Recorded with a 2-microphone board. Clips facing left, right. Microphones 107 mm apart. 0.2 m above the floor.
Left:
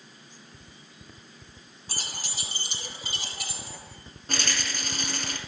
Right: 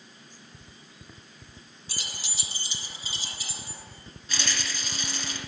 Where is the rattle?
55° left (ahead or behind), 1.8 m.